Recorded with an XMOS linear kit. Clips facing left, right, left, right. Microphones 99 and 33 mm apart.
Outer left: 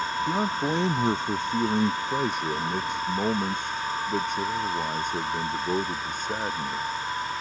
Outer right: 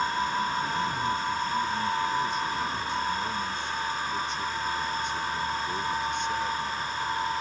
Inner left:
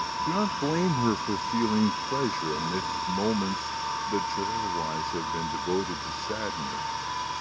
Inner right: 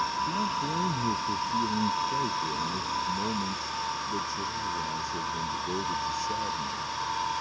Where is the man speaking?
70° left (ahead or behind); by 6.8 s 40° left (ahead or behind).